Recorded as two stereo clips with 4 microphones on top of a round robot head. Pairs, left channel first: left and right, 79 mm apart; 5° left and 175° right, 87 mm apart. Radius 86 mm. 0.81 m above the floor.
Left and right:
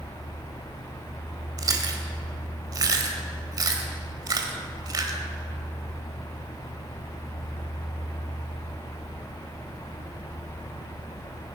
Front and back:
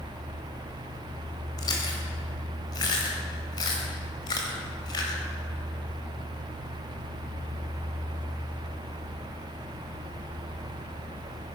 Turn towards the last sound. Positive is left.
turn(degrees=-50)